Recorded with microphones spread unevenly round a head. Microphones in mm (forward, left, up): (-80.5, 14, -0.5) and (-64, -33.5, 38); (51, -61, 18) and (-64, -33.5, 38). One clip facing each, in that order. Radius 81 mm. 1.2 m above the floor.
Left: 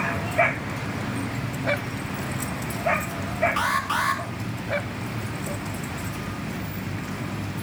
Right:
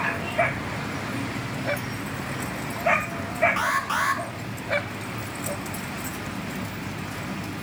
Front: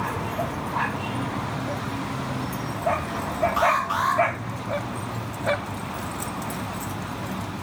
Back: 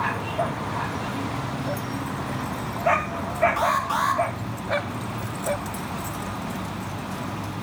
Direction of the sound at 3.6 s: 155° right.